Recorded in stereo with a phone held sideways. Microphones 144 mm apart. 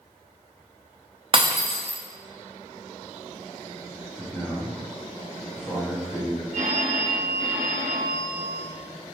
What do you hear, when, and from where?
1.3 s breaking glass: 35° right (ahead or behind), 0.5 m
4.2 s a man speaking: 15° left (ahead or behind), 1.1 m
6.5 s a phone ringing: 65° right (ahead or behind), 0.9 m